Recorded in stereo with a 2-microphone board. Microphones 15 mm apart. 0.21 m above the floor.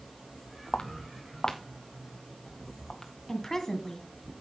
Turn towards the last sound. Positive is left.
turn(degrees=25)  # may be behind; listen again after turning